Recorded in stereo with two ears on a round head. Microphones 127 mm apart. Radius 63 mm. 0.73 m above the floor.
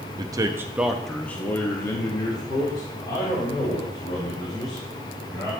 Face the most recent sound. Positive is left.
turn(degrees=30)  # may be behind; listen again after turning